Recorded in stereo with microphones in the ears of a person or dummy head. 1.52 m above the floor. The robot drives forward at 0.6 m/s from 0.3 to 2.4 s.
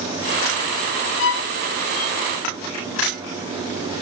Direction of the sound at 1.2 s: 65° left (ahead or behind).